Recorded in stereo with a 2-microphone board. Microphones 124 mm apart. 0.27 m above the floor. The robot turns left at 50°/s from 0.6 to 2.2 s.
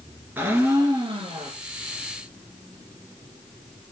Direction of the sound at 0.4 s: 15° right.